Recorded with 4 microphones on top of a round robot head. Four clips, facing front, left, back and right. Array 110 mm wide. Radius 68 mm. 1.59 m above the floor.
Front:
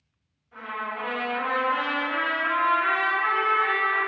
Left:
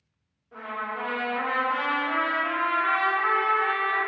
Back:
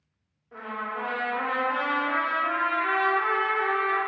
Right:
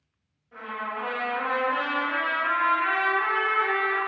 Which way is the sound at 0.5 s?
165° left.